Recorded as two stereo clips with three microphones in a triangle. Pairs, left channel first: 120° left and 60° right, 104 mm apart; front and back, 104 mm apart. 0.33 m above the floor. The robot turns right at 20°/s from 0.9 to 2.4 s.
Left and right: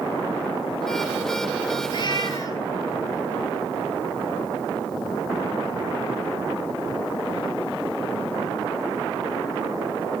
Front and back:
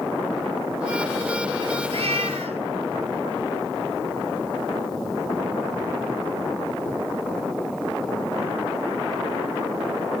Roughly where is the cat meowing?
Behind.